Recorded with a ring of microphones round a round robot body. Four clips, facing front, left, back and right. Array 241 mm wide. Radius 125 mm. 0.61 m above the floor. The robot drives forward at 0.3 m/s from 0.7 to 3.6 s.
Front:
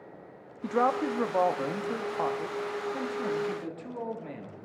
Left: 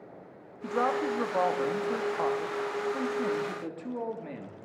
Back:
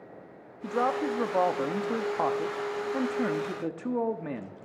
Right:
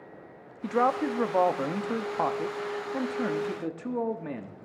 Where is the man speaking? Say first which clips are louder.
Right 3 dB, front 1 dB; 60° right, 0.9 m; by 4.5 s 150° right, 1.1 m.